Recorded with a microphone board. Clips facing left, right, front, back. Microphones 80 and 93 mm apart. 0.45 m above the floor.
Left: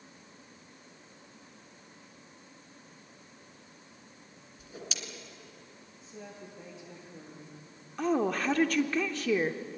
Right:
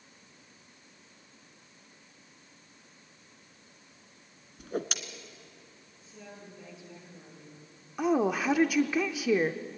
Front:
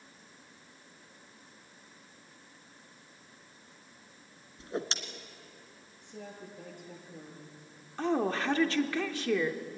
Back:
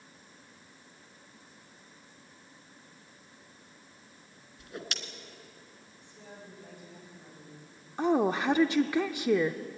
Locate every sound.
4.6 s a whoosh: 60° right, 1.4 m
6.0 s a woman speaking: 30° left, 8.5 m
8.0 s a woman speaking: 150° right, 0.7 m